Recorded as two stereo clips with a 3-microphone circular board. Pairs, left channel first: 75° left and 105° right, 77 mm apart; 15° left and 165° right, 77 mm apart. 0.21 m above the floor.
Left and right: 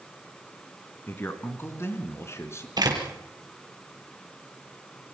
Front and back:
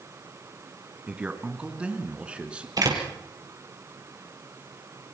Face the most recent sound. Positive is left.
turn(degrees=-130)